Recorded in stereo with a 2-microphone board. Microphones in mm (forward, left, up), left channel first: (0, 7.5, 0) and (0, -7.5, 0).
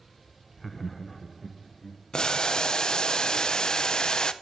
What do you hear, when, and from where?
0.6 s laughter: 10° left (ahead or behind), 0.7 m; by 2.0 s 10° right (ahead or behind), 2.5 m
2.1 s boiling: 55° left (ahead or behind), 0.7 m